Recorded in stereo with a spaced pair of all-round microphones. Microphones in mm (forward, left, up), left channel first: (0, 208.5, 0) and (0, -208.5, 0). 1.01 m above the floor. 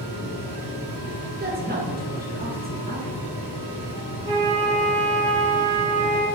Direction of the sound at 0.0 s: 55° left (ahead or behind).